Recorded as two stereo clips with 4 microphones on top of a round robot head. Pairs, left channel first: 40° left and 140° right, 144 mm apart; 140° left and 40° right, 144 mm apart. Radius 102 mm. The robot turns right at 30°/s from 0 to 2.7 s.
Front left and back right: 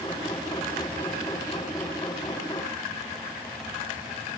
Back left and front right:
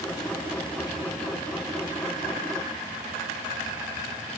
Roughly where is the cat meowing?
No cat meowing in this recording.